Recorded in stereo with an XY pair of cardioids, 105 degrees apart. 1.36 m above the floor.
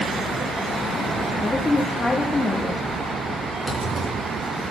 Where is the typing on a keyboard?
10° right, 6.5 m.